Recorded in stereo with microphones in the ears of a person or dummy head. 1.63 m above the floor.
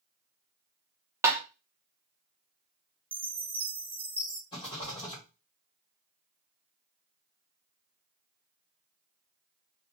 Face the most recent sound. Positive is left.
turn(degrees=25)  # may be behind; listen again after turning